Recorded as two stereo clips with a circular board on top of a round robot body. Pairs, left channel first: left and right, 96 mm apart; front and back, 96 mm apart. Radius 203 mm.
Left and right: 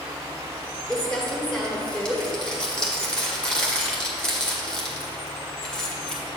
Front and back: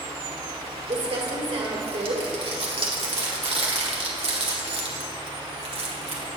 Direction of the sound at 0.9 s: 170° left.